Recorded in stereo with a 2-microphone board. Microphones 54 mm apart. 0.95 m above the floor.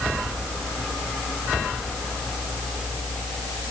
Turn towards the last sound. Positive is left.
No sound to turn to.